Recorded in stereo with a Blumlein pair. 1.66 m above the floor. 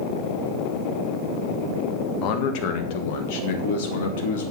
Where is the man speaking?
40° left, 1.6 m; by 4.5 s 55° left, 2.5 m.